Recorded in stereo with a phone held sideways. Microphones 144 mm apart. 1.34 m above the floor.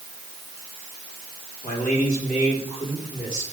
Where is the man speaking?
75° left (ahead or behind), 8 m.